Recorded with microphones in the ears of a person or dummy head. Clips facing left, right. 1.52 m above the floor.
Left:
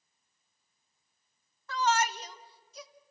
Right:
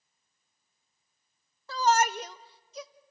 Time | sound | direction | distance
1.7 | a shout | 30° right (ahead or behind) | 0.6 m